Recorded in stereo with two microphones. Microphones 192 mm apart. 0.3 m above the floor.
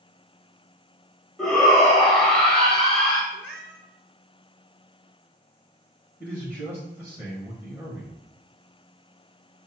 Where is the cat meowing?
5° right (ahead or behind), 1.5 m.